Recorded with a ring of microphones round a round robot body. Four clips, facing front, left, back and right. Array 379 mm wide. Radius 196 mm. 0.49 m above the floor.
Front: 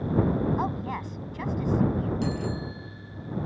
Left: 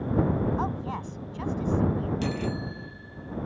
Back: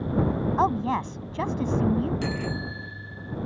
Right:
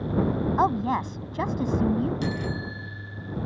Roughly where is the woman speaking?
Behind right.